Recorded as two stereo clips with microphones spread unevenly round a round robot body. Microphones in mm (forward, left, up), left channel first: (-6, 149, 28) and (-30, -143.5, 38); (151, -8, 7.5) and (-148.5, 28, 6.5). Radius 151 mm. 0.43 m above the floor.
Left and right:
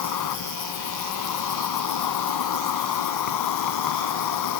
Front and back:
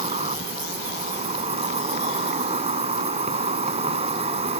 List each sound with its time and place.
0.0 s an insect: 100° left